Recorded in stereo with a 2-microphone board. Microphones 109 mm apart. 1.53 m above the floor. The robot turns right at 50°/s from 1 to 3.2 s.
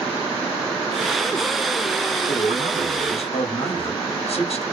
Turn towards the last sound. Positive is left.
turn(degrees=115)